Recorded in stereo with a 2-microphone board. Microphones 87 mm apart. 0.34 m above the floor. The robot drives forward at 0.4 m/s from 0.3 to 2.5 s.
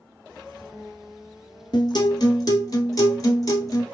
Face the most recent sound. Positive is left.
turn(degrees=45)  # may be behind; listen again after turning